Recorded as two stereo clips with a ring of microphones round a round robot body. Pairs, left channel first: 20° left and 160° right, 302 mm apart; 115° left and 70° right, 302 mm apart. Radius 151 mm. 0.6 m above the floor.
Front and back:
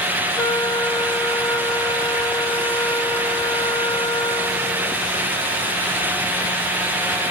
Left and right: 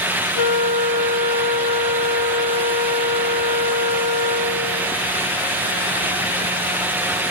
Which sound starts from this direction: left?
A flute, at 0.4 s.